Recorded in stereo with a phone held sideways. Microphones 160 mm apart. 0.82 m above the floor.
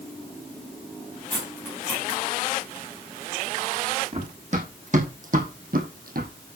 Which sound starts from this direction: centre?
Cutlery clinking, at 1.3 s.